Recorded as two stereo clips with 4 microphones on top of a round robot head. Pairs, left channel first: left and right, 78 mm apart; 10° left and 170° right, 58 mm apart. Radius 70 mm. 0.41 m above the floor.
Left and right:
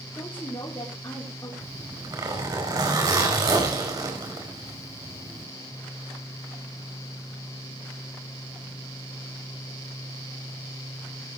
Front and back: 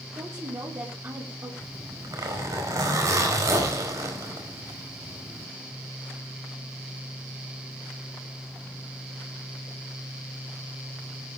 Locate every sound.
0.1 s a woman speaking: 160° left, 4.5 m; by 1.5 s 145° left, 5 m
1.6 s a zipper: 135° right, 5 m